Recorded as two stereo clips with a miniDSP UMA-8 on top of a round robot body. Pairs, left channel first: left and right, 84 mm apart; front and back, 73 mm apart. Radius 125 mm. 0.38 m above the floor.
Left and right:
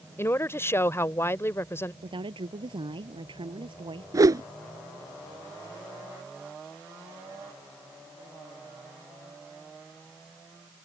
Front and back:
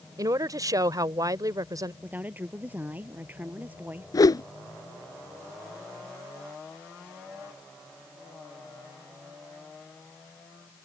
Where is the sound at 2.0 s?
115° right.